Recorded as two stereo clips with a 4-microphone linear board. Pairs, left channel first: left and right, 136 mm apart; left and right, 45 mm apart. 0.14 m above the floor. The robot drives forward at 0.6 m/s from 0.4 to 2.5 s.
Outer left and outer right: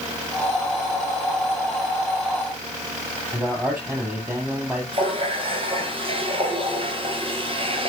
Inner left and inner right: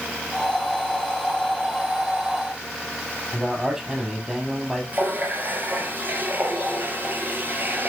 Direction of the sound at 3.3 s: 15° right (ahead or behind).